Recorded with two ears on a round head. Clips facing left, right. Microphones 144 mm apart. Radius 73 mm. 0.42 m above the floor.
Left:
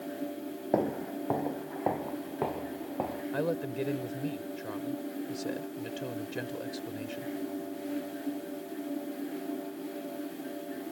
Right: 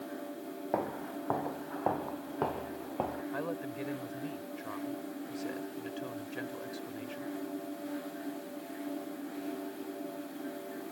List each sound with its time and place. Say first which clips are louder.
0.7 s footsteps: left 6 dB; 35° left (ahead or behind); by 3.2 s 5° left (ahead or behind)
3.3 s a woman speaking: left 6 dB; 45° left (ahead or behind)